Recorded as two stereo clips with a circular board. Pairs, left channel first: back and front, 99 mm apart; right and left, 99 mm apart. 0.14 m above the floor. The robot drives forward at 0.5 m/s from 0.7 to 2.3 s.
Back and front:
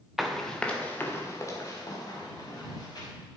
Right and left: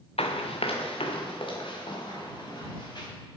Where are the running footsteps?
85° right, 1.1 m; by 3.1 s 130° right, 4.5 m.